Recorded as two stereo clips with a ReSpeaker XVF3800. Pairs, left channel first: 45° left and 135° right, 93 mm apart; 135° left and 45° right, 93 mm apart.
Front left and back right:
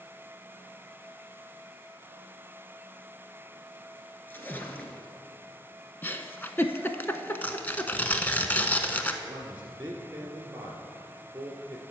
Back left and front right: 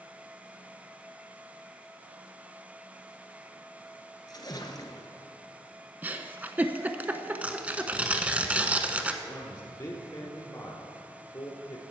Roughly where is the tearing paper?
Ahead.